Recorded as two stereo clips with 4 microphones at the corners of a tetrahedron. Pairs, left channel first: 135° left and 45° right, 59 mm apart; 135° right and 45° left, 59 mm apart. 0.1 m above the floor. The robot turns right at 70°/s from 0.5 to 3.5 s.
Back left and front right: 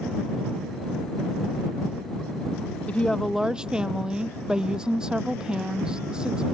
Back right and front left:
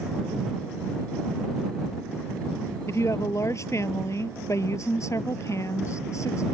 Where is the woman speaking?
165° right; by 6.5 s 120° right.